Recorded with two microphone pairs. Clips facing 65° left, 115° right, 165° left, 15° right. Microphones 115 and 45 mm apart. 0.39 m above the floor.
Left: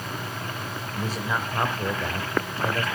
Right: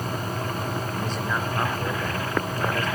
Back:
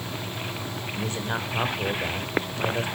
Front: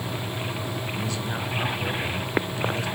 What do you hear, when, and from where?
0.9 s a man speaking: 140° left, 1.8 m